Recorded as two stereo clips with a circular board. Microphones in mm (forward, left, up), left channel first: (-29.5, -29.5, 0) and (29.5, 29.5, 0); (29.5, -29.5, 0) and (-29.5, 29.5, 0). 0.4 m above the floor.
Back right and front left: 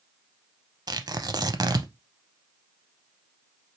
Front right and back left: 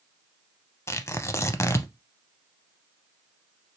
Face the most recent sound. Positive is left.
turn(degrees=10)